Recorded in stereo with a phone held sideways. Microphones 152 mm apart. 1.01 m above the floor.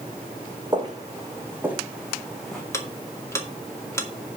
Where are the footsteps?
30° right (ahead or behind), 2.5 m; by 2.6 s 5° left (ahead or behind), 3 m.